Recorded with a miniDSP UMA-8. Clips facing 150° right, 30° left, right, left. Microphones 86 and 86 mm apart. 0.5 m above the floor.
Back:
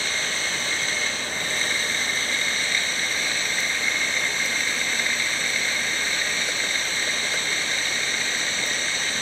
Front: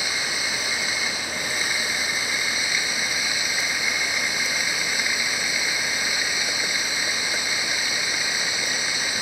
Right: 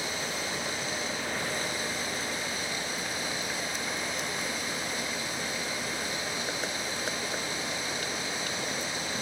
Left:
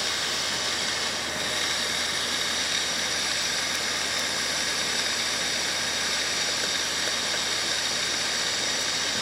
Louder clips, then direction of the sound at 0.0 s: Even, left 2 dB; 110° left.